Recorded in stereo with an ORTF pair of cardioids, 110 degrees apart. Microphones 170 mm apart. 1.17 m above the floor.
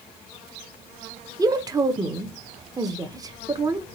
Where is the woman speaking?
20° right, 0.6 m.